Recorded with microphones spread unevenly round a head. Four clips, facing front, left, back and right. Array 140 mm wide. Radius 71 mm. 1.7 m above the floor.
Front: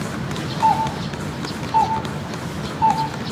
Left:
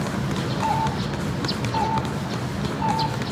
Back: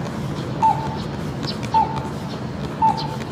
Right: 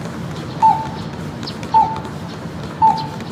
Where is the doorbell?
120° right, 1.1 m.